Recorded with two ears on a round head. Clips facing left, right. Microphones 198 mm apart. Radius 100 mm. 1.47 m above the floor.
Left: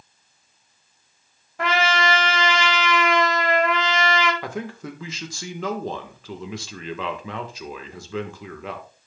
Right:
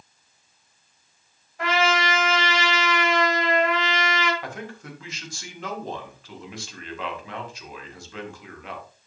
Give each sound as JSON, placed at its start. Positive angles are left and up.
{"t": 1.6, "sound": "a trumpet", "side_deg": 55, "distance_m": 2.5}
{"t": 4.4, "sound": "a man speaking", "side_deg": 65, "distance_m": 1.6}